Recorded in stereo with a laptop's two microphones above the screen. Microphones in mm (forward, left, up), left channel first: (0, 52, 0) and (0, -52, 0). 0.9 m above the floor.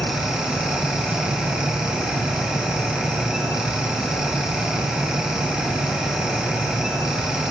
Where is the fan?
10° right (ahead or behind), 1.5 m.